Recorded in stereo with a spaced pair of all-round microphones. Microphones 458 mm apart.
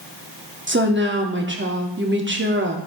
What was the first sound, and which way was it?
A woman speaking, 25° right (ahead or behind).